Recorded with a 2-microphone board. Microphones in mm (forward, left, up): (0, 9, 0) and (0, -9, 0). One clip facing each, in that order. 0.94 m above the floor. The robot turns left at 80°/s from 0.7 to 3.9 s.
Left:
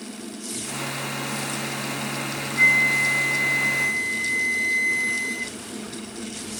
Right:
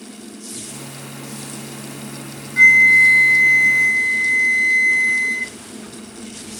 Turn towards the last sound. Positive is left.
turn(degrees=-160)